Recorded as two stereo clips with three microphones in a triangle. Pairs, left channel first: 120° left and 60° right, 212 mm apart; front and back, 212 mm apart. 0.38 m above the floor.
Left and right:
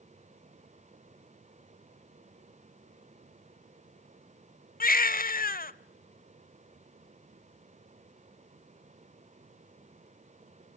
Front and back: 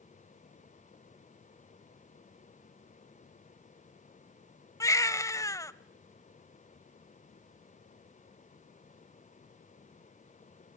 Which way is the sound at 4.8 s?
75° left.